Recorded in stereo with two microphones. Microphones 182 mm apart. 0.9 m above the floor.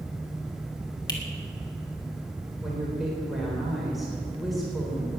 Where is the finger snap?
20° left (ahead or behind), 2.5 m.